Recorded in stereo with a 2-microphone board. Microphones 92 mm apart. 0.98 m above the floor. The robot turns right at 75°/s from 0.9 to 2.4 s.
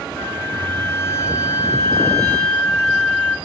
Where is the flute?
50° left, 0.7 m; by 3.4 s 160° left, 0.7 m.